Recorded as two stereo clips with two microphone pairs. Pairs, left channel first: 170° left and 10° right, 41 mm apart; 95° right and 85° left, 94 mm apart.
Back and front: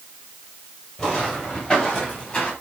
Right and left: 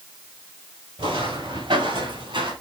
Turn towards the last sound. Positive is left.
turn(degrees=100)